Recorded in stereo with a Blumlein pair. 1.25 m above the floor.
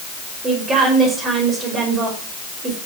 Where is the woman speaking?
20° right, 5.5 m.